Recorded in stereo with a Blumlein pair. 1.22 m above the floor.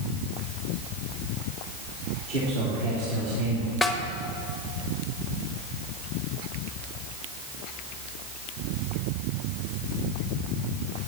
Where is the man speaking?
50° right, 3.5 m.